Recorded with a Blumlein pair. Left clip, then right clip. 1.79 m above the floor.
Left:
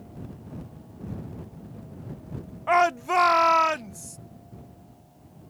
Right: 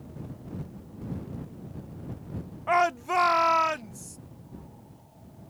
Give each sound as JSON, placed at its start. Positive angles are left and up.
{"t": 2.7, "sound": "a shout", "azimuth_deg": 10}